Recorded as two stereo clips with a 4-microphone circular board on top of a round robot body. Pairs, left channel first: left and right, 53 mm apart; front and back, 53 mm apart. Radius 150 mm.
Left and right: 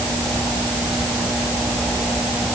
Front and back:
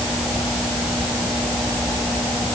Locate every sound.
Only background noise.